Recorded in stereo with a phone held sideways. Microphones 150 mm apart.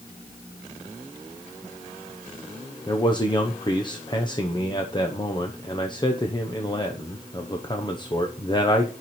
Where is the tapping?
I don't hear tapping.